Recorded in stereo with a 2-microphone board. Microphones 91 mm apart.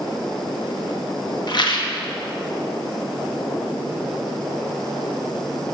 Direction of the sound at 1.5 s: 50° left (ahead or behind).